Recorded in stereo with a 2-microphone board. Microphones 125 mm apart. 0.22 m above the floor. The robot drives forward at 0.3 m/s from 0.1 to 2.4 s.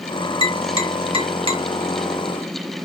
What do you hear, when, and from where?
0.4 s tapping: 50° right (ahead or behind), 2 m; by 1.6 s 45° right (ahead or behind), 2.5 m